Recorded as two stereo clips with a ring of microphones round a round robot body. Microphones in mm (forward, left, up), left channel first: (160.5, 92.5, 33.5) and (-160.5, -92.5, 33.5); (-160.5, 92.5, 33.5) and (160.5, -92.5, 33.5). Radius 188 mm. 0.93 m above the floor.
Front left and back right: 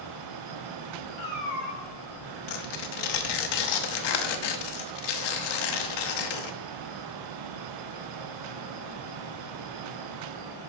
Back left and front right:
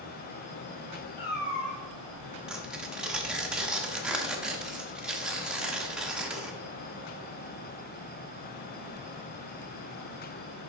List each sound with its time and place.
1.2 s a cat meowing: 85° left, 3 m
2.5 s tearing paper: 60° left, 0.8 m